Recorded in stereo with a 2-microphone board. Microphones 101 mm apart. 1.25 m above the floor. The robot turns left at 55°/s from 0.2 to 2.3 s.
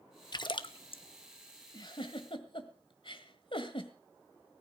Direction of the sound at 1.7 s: 45° left (ahead or behind).